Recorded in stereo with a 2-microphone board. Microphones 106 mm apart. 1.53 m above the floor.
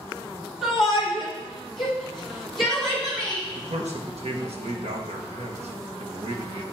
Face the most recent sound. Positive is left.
turn(degrees=-80)